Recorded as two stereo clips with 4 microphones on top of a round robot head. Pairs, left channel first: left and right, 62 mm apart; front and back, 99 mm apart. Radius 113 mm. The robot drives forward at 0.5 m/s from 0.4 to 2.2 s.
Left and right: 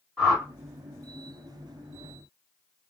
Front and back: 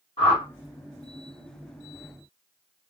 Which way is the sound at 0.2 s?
Straight ahead.